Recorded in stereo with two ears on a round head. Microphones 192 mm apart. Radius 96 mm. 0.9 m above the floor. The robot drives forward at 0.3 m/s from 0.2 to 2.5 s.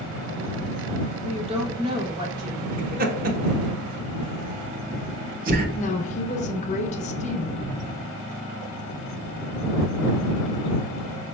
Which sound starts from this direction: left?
A woman speaking, at 5.8 s.